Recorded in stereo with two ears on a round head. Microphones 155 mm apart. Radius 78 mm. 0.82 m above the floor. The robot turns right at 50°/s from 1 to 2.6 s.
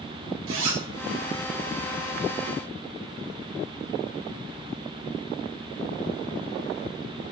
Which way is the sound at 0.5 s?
80° right.